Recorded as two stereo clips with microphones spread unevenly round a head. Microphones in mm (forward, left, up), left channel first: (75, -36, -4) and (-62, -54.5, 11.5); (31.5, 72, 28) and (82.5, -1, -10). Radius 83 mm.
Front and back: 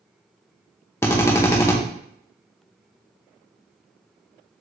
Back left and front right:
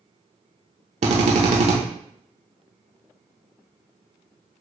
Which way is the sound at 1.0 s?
65° right.